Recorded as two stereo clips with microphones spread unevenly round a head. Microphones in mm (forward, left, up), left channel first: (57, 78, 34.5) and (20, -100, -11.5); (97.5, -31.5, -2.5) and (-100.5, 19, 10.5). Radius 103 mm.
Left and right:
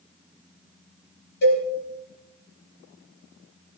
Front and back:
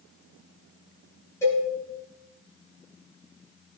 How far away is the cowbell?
About 4.5 m.